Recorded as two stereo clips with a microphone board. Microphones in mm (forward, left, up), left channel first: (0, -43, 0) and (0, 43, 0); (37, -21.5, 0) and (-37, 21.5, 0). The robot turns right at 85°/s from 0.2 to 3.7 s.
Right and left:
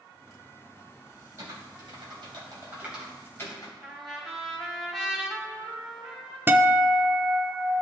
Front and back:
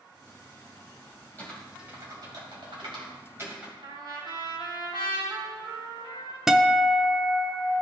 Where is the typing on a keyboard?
35° left, 3 m; by 3.7 s 125° right, 3 m.